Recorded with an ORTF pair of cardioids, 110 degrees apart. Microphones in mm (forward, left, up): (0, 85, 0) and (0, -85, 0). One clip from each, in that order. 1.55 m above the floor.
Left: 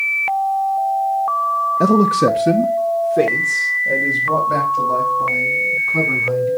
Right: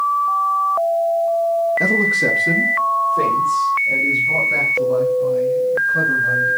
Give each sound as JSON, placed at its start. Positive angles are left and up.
{"t": 1.8, "sound": "a man speaking", "azimuth_deg": 35, "distance_m": 0.8}